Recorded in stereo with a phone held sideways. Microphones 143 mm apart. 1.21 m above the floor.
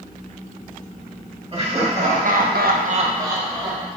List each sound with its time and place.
1.5 s laughter: 40° right (ahead or behind), 1.7 m; by 3.9 s centre (ahead or behind), 1.4 m